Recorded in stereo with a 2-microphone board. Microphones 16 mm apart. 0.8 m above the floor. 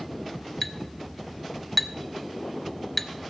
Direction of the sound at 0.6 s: 5° left (ahead or behind).